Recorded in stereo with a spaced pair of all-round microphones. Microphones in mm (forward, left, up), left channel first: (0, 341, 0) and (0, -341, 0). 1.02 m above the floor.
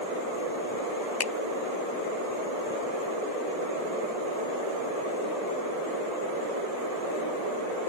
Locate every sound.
1.2 s a finger snap: 35° left (ahead or behind)